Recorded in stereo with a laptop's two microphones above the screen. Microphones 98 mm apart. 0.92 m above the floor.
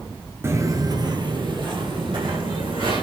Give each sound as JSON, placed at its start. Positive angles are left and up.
{"t": 0.4, "sound": "footsteps", "side_deg": -30, "distance_m": 1.0}